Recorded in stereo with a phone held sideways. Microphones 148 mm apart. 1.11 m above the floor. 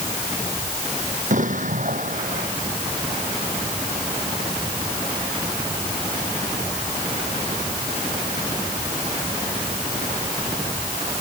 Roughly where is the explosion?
Right.